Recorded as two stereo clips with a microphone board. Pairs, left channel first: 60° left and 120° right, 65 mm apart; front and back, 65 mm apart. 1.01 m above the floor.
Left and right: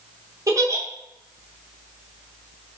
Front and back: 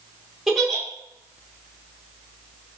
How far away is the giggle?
About 0.8 m.